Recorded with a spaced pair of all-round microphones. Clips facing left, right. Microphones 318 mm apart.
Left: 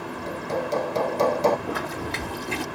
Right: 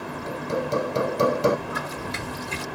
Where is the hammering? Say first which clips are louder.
Right 1 dB; 15° right (ahead or behind).